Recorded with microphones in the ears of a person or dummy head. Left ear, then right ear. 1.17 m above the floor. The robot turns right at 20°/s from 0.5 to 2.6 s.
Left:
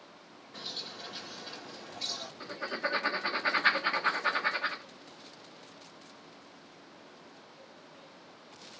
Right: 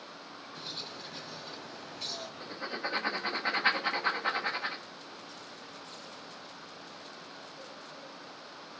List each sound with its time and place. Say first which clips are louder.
0.5 s a bird: left 1 dB; 155° left, 1.5 m; by 2.3 s 170° right, 1.5 m
2.4 s writing: left 3 dB; centre (ahead or behind), 1.2 m